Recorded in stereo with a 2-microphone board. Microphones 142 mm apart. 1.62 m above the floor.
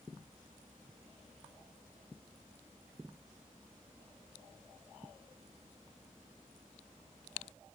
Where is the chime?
No chime in this recording.